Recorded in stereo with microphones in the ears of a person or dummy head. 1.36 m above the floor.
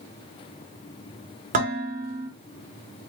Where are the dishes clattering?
45° right (ahead or behind), 1.9 m.